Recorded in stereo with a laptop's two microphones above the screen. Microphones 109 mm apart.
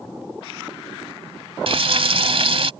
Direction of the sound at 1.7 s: 60° right (ahead or behind).